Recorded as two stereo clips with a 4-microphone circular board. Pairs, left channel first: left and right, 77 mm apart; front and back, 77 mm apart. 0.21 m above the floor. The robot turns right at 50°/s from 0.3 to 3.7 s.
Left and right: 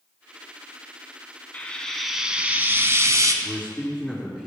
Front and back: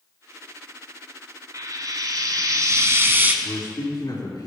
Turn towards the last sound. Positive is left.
turn(degrees=-15)